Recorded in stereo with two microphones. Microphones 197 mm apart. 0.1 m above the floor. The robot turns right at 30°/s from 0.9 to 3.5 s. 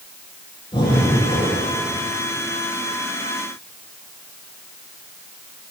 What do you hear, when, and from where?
0.7 s breathing: 25° left (ahead or behind), 1.7 m; by 1.7 s 45° left (ahead or behind), 1.7 m